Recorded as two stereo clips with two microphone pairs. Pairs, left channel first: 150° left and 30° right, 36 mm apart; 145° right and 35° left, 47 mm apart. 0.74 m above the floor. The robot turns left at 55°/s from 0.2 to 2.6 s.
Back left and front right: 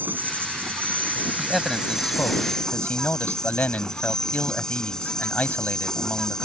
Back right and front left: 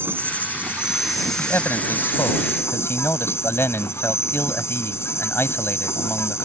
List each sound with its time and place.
0.0 s an insect: 5° right; by 6.5 s 135° right
1.4 s a man speaking: 110° right; by 6.5 s 175° right